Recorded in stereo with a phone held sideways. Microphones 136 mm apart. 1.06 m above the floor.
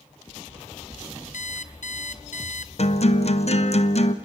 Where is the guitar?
50° left (ahead or behind), 1.1 m.